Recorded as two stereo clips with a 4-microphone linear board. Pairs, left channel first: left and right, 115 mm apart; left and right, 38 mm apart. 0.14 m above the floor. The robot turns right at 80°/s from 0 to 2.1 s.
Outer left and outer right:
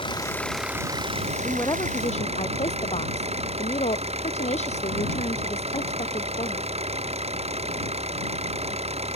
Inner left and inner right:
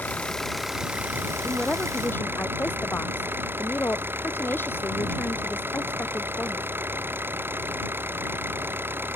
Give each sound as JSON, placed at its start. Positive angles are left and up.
{"t": 0.0, "sound": "an engine running", "azimuth_deg": 135}
{"t": 1.4, "sound": "a woman speaking", "azimuth_deg": 10}